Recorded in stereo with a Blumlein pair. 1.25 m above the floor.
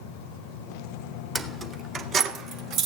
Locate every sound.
1.4 s keys jangling: 10° right, 1.9 m; by 2.9 s 40° right, 3 m